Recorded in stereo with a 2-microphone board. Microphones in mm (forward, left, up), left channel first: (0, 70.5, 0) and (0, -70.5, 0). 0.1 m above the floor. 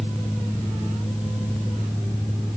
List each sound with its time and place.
Only background noise.